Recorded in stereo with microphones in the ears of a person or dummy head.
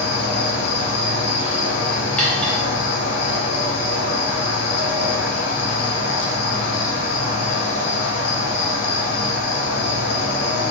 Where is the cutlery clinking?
5° left (ahead or behind), 1.0 m.